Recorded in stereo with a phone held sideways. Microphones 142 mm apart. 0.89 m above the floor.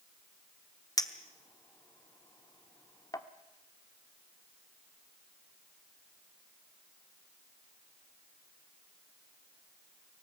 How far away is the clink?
About 1.0 m.